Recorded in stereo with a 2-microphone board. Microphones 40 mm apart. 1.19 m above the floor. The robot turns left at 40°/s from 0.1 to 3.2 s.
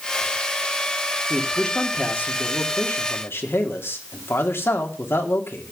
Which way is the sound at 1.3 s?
170° left.